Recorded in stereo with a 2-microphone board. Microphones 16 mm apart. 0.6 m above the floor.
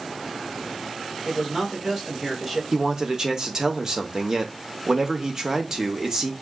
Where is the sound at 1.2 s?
20° right (ahead or behind), 1.7 m.